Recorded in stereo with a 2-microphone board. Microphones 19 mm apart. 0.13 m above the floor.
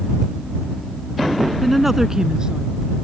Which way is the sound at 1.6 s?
5° left (ahead or behind).